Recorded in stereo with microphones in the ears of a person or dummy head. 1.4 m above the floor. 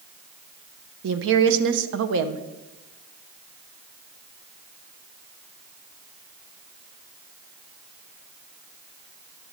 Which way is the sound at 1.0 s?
70° right (ahead or behind).